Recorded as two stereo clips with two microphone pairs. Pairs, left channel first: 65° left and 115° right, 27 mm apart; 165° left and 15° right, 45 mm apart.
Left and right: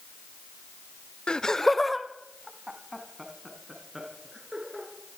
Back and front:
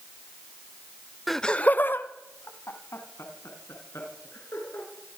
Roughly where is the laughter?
Left.